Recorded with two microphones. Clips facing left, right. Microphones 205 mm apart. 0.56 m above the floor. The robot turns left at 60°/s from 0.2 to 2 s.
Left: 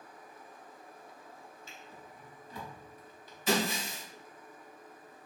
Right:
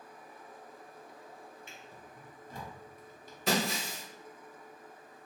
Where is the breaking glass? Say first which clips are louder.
Left 1 dB; 70° right (ahead or behind), 0.9 m.